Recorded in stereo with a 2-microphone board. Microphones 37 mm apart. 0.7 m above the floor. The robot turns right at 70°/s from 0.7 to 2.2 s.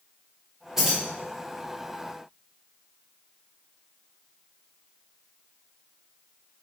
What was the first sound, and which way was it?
Keys jangling, 15° right (ahead or behind).